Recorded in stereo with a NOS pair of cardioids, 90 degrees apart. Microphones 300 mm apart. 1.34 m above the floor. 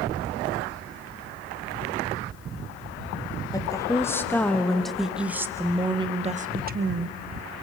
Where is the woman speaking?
10° left, 2.5 m; by 7.2 s 45° right, 1.2 m.